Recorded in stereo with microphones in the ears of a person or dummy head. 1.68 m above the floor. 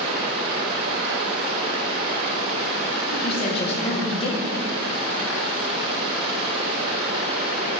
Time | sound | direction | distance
0.0 | running water | 35° right (ahead or behind) | 3 m
3.1 | a woman speaking | 30° left (ahead or behind) | 1.9 m